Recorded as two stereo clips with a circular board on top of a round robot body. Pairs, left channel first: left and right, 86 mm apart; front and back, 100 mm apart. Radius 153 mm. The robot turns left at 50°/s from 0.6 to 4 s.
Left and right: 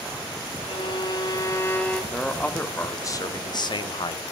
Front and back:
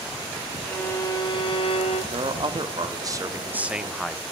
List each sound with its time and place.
0.7 s a violin: 75° left, 3 m; by 2.0 s 10° left, 3 m
2.1 s a man speaking: straight behind, 1.3 m; by 4.3 s 90° left, 1.3 m